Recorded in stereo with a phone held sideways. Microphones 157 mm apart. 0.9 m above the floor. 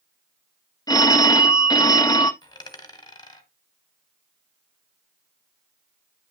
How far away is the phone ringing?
About 0.9 m.